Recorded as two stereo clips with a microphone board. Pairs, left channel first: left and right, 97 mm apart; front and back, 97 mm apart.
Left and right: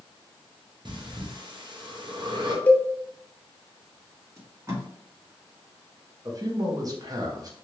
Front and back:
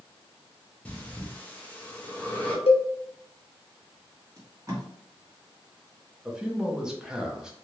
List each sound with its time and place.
0.8 s breathing: 70° right, 0.7 m
2.7 s a cowbell: 20° left, 0.6 m
4.4 s tape being pulled: 135° right, 1.3 m
6.2 s a man speaking: 100° right, 0.7 m